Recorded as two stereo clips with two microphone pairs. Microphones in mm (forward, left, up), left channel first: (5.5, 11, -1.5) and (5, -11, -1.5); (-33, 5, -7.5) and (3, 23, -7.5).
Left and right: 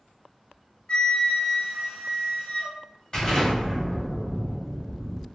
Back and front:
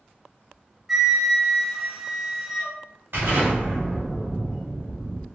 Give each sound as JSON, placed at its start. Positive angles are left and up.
{"t": 0.9, "sound": "a flute", "azimuth_deg": 110, "distance_m": 0.7}
{"t": 3.1, "sound": "an explosion", "azimuth_deg": 35, "distance_m": 1.6}